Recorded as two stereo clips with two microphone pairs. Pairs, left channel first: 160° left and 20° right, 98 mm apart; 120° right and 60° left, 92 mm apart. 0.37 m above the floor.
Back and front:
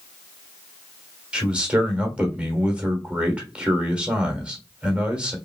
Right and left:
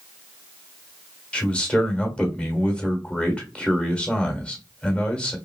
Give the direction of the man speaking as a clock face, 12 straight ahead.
2 o'clock.